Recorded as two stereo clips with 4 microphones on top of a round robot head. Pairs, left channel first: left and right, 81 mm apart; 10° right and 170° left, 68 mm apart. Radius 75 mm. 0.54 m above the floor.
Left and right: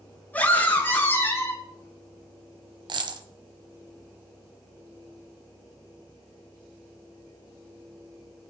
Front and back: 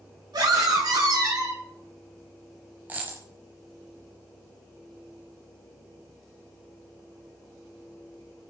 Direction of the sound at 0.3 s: 160° left.